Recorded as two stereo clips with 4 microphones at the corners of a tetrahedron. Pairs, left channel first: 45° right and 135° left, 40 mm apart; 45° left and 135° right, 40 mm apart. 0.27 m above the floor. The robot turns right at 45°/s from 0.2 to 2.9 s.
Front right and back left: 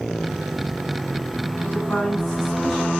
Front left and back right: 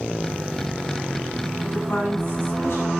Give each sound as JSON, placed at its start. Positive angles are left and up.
{"t": 1.6, "sound": "a woman speaking", "azimuth_deg": 5, "distance_m": 2.0}